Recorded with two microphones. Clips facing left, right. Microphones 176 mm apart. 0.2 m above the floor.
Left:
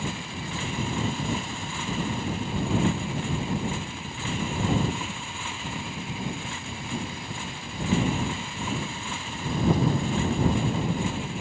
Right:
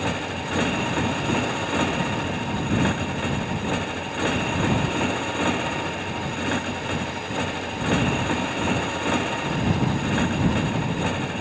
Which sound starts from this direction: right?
A motorcycle, at 0.0 s.